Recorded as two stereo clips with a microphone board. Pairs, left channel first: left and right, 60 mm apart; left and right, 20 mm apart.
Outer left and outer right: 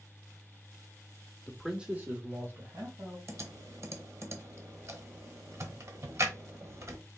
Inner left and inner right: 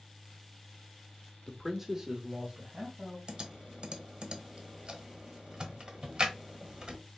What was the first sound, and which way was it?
A man speaking, 15° left (ahead or behind).